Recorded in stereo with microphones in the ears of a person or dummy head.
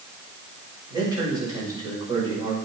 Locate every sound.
0.9 s a man speaking: 25° right (ahead or behind), 5.5 m